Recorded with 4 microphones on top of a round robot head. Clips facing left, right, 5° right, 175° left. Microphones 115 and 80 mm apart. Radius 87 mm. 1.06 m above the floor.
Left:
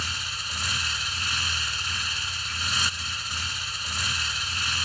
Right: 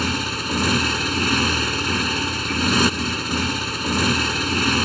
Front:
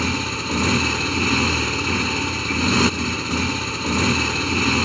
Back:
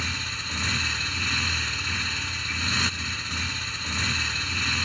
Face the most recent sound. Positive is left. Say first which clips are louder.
# right 13 dB, front 10 dB
turn(degrees=-45)